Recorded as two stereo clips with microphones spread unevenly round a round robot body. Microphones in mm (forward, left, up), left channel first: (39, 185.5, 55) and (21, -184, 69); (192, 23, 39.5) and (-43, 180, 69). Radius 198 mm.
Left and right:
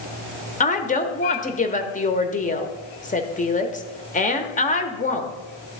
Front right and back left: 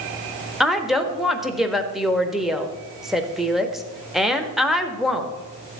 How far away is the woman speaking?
About 1.2 m.